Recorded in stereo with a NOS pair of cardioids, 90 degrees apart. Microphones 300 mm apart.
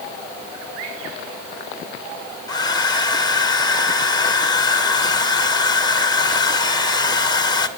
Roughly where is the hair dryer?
Ahead.